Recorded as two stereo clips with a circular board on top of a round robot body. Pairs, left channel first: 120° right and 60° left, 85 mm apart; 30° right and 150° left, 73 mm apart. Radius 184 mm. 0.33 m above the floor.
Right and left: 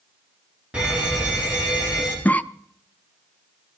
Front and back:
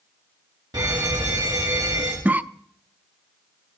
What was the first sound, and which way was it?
A fire alarm, 135° left.